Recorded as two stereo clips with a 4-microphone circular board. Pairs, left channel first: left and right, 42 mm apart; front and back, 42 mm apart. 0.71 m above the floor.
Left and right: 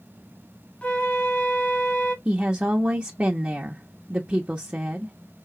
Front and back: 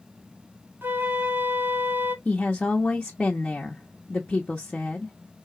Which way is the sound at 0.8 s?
155° left.